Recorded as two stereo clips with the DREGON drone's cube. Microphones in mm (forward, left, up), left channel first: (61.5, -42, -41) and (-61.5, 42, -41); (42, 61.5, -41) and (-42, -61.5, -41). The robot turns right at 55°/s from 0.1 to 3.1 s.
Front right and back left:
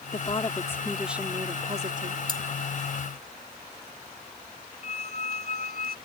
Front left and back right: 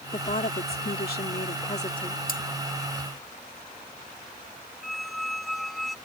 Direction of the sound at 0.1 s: 10° left.